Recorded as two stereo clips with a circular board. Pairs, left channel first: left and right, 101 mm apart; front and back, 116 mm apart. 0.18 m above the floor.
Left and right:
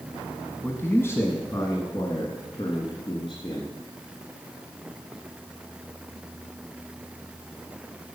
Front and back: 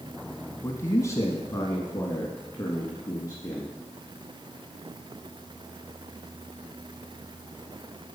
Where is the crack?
I don't hear a crack.